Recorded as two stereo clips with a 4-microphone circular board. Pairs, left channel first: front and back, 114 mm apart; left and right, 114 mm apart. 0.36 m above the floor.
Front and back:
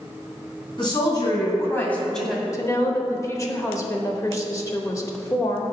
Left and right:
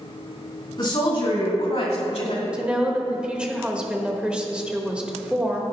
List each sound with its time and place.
0.8 s a woman speaking: 45° left, 2.5 m; by 2.4 s 100° left, 1.8 m
2.5 s a woman speaking: 20° right, 0.9 m